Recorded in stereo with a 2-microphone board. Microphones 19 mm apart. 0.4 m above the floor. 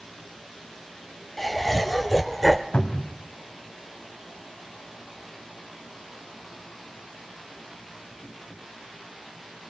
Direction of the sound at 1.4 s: 10° left (ahead or behind).